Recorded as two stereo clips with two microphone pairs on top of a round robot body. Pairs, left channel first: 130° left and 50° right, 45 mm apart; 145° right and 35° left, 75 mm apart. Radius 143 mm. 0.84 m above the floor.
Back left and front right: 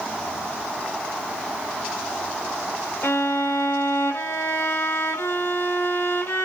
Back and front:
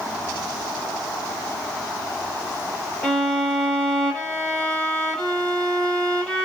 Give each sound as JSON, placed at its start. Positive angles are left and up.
{"t": 3.0, "sound": "a violin", "azimuth_deg": 130, "distance_m": 2.5}